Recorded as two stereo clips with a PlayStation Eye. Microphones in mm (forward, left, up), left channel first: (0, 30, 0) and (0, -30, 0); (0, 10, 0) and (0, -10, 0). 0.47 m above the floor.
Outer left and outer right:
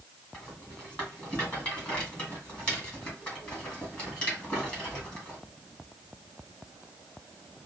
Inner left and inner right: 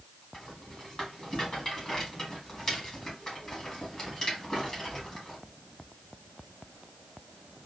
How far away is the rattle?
About 2 m.